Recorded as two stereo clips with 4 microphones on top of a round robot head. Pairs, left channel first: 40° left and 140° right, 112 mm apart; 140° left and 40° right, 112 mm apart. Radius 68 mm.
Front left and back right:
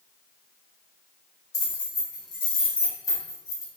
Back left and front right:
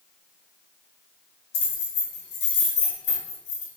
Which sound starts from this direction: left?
Keys jangling, at 1.5 s.